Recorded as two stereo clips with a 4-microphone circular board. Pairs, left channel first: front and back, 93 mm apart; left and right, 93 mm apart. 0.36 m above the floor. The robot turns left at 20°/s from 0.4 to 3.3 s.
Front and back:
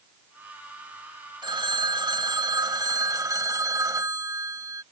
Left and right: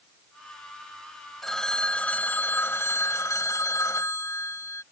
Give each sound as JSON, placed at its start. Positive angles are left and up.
{"t": 1.4, "sound": "a phone ringing", "azimuth_deg": 175}